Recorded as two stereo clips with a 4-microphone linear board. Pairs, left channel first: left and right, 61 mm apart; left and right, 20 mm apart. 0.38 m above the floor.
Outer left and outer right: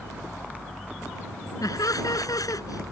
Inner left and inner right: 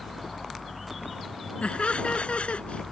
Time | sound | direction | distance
1.6 | laughter | 80° left | ?